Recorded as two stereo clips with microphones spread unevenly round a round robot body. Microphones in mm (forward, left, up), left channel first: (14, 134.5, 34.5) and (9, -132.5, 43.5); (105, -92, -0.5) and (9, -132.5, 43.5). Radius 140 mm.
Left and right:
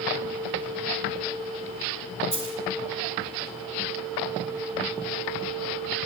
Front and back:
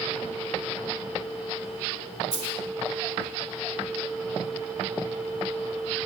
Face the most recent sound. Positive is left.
turn(degrees=175)